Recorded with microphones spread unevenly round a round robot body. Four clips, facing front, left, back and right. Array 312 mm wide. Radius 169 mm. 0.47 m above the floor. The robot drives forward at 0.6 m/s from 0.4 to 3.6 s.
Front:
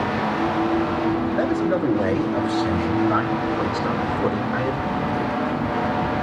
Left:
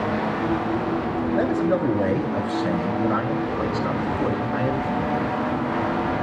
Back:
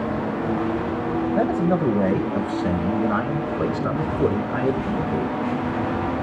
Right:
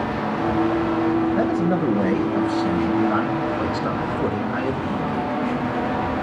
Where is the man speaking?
175° right, 4 m; by 5.3 s straight behind, 5 m.